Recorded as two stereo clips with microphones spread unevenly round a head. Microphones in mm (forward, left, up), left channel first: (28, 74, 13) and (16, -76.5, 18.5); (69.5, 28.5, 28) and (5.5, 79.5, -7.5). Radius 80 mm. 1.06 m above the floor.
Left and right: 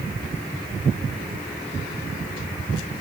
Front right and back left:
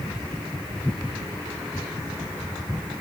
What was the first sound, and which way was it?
Only background noise.